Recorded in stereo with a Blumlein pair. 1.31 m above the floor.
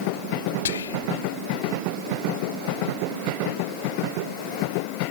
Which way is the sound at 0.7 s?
65° left.